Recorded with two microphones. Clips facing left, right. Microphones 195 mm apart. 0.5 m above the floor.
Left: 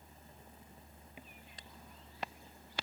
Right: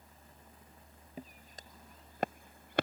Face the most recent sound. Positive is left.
turn(degrees=-60)  # may be behind; listen again after turning